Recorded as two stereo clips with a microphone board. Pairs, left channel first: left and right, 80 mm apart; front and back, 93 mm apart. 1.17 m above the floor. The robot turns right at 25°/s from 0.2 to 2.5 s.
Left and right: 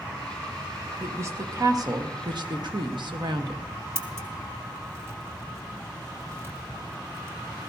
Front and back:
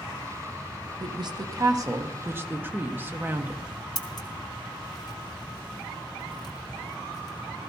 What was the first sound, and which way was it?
A woman speaking, 150° right.